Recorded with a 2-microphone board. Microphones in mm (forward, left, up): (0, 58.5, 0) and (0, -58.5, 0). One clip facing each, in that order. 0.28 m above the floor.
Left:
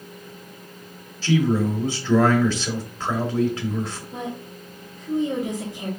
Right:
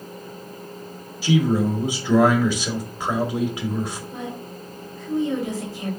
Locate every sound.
1.2 s a man speaking: 15° right (ahead or behind), 0.9 m
4.1 s a woman speaking: 20° left (ahead or behind), 1.0 m